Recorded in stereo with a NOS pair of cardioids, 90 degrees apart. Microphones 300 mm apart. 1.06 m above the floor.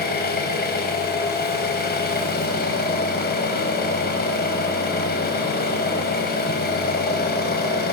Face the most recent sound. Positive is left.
turn(degrees=35)